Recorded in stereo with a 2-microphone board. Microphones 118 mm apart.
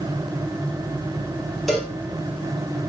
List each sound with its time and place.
1.7 s a cowbell: centre (ahead or behind), 0.8 m